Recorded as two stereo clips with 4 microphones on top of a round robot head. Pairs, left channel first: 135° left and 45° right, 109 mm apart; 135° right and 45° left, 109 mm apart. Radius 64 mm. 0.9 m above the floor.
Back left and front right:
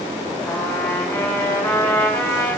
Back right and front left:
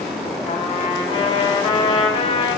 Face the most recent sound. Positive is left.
turn(degrees=-160)